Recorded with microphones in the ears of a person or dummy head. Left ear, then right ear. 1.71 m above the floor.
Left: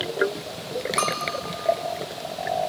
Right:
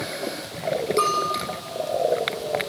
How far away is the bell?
About 2.5 m.